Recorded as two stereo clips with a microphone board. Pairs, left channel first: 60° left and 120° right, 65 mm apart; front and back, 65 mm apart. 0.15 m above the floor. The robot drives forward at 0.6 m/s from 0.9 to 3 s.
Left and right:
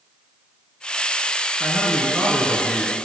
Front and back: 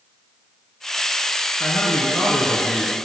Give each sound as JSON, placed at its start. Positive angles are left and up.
{"t": 1.6, "sound": "a man speaking", "azimuth_deg": -10, "distance_m": 2.0}